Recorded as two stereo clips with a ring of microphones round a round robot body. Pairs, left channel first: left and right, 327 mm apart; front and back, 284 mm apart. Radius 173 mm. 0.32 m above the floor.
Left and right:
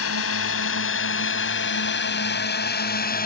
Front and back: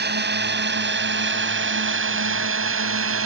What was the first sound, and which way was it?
A drone, 130° left.